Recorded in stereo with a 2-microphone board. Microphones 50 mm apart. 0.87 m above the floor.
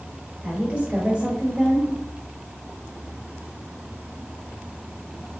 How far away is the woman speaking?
About 1.4 m.